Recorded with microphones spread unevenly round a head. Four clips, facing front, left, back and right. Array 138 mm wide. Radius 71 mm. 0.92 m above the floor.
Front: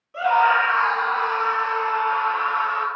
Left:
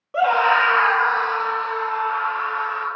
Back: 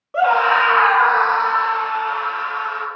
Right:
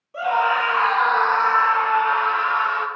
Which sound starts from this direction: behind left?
A scream, at 0.1 s.